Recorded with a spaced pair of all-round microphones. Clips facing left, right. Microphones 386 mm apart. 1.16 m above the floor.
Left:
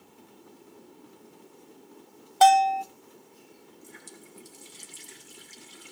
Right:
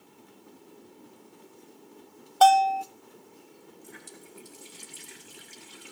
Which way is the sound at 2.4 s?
35° left (ahead or behind).